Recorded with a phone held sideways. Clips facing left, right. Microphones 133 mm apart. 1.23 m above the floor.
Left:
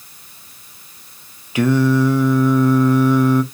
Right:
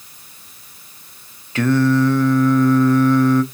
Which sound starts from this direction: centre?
Singing, at 1.6 s.